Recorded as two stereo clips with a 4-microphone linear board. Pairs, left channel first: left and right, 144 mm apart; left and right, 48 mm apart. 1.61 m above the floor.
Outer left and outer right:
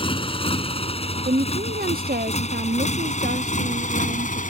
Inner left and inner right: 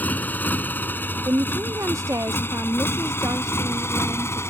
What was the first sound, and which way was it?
A motorcycle, 35° left (ahead or behind).